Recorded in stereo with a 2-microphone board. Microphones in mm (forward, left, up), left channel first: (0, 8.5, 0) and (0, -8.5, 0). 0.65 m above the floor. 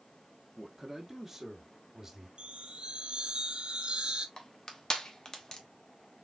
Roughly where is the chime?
Right.